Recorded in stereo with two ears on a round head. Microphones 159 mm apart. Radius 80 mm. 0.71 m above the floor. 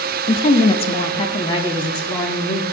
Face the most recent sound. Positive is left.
turn(degrees=20)  # may be behind; listen again after turning